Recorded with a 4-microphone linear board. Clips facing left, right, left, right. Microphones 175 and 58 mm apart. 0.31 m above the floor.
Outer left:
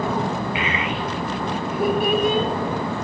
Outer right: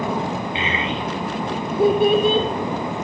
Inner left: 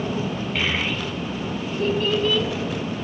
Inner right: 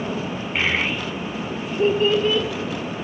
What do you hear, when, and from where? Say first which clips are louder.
0.6 s a child speaking: even, inner right 4 dB; 25° right (ahead or behind), 5 m